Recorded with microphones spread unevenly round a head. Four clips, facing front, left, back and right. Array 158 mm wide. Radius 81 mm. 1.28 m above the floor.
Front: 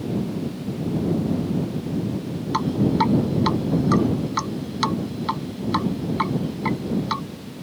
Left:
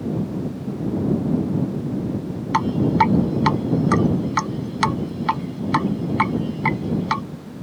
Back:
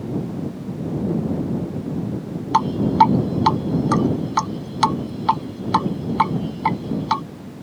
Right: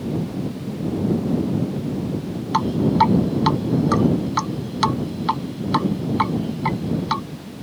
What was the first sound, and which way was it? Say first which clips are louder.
Dripping: even, back 5 dB; straight behind.